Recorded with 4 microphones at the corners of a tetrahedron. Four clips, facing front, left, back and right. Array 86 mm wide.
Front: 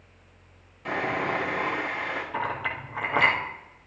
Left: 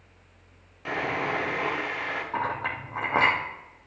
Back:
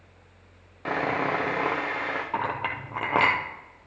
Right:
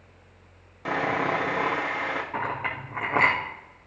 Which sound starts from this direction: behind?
A clink, at 2.3 s.